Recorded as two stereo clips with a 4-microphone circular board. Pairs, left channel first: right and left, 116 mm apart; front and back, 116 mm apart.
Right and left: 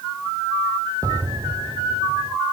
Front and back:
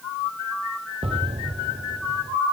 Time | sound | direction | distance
1.0 | an explosion | 150° left | ?